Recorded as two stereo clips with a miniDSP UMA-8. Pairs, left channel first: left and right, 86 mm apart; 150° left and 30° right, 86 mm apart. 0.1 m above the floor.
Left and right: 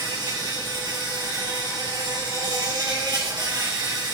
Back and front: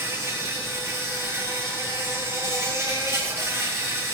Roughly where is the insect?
Right.